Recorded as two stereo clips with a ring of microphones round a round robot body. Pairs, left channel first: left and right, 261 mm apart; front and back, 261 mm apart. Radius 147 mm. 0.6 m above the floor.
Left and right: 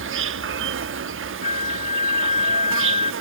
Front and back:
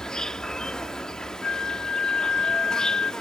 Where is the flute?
30° left.